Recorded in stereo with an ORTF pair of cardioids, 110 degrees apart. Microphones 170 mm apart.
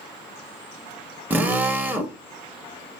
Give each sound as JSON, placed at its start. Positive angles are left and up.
{"t": 1.3, "sound": "a drill", "azimuth_deg": -10, "distance_m": 1.2}